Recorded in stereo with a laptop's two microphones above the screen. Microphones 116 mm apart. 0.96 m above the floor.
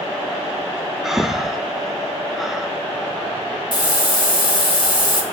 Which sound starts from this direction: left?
A hiss, at 3.7 s.